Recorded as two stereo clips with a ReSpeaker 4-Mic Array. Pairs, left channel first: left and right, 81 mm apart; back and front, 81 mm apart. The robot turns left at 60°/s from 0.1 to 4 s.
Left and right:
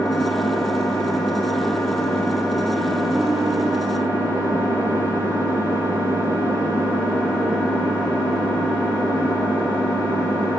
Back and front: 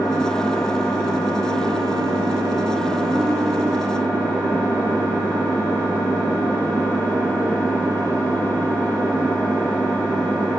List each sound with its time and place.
0.0 s an engine running: 150° left, 4.5 m; by 10.6 s 80° right, 4.5 m